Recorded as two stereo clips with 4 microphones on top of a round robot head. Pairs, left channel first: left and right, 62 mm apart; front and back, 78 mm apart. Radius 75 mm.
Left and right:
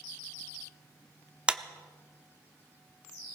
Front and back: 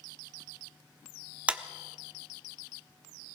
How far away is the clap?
About 1.0 m.